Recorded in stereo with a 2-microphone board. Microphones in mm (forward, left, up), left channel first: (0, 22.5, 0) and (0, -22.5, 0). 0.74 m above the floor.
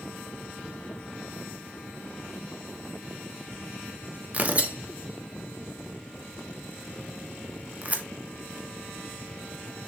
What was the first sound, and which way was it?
Tearing paper, 30° right (ahead or behind).